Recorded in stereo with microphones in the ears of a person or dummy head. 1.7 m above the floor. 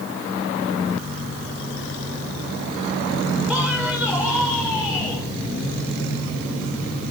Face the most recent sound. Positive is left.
turn(degrees=-10)  # may be behind; listen again after turning